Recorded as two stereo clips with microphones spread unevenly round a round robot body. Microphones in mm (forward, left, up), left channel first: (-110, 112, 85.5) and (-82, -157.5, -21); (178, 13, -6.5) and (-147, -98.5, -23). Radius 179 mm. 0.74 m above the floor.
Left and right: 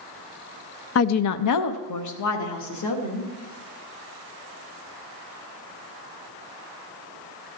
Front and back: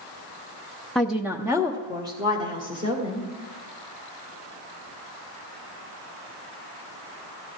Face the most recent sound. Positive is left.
turn(degrees=120)